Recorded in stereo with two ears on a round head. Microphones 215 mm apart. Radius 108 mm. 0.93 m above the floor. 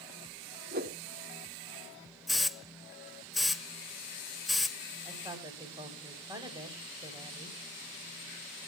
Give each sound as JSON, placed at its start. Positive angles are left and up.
{"t": 0.7, "sound": "a whoosh", "side_deg": -40, "distance_m": 1.6}
{"t": 2.3, "sound": "a hiss", "side_deg": 0, "distance_m": 0.7}
{"t": 5.0, "sound": "a woman speaking", "side_deg": -20, "distance_m": 4.0}